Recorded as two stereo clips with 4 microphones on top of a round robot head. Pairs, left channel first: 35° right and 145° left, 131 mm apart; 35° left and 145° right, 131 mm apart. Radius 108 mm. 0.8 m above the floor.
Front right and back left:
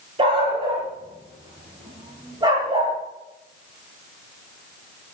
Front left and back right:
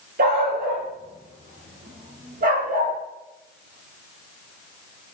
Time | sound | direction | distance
0.2 | a dog barking | 165° right | 9 m